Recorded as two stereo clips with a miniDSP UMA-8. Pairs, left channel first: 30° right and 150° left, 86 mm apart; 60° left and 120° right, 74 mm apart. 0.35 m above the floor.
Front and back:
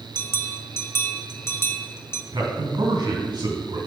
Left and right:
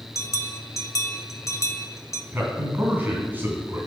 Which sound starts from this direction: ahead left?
A bell, at 0.1 s.